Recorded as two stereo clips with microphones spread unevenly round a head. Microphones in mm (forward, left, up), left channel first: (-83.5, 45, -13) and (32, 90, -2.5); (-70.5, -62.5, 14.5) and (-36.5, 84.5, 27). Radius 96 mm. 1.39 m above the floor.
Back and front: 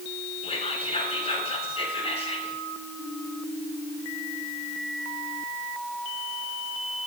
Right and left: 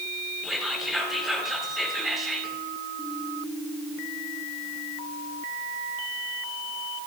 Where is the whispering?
165° left, 8 m.